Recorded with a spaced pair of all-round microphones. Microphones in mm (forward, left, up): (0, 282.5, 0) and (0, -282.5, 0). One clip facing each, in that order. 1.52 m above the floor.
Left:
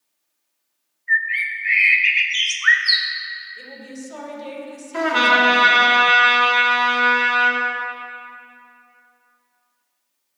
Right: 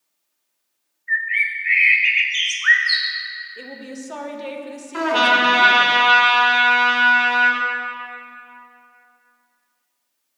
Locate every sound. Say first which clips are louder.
1.1 s a bird: left 1 dB; 65° left (ahead or behind), 0.6 m
3.6 s a woman speaking: right 2 dB; 80° right, 0.8 m
4.9 s a trumpet: even; 25° left (ahead or behind), 1.5 m